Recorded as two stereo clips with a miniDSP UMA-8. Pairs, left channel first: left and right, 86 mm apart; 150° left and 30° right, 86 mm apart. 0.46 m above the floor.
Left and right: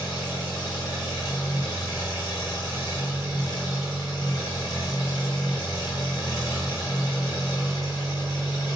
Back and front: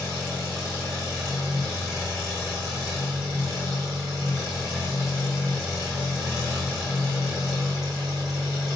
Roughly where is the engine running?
Ahead left.